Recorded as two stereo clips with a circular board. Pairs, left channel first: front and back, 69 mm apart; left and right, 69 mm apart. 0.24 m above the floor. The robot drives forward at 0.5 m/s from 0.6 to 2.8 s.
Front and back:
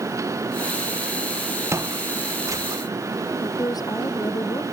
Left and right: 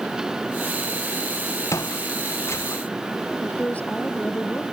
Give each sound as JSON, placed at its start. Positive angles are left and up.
{"t": 1.7, "sound": "footsteps", "azimuth_deg": 135}
{"t": 3.4, "sound": "a woman speaking", "azimuth_deg": 20}